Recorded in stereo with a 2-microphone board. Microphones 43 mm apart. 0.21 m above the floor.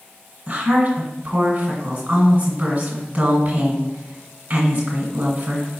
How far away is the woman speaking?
About 1.6 m.